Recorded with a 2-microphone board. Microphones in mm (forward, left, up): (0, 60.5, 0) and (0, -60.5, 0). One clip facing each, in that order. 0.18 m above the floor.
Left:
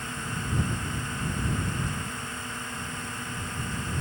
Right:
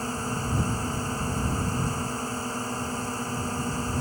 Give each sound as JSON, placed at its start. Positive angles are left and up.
{"t": 0.0, "sound": "a drone", "side_deg": -35}